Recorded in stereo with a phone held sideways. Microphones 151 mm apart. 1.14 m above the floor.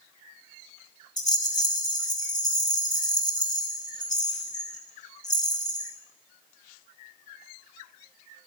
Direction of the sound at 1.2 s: 25° left (ahead or behind).